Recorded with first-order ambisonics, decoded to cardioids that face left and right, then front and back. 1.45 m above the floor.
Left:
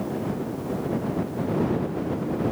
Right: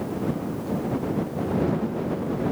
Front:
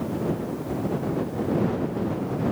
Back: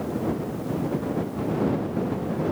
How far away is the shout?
I don't hear a shout.